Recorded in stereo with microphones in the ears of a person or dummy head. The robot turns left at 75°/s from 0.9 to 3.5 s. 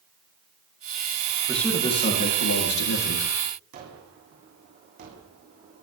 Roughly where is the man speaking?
Behind.